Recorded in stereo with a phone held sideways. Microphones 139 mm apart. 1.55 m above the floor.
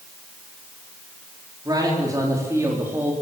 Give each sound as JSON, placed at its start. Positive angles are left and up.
{"t": 1.6, "sound": "a man speaking", "side_deg": -30, "distance_m": 4.5}